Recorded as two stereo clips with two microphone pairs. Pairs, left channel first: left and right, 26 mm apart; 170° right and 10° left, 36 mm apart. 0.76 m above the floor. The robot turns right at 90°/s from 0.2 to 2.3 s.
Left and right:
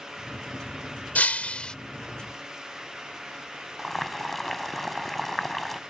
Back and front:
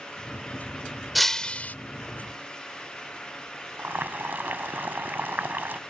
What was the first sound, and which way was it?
Breaking glass, 100° left.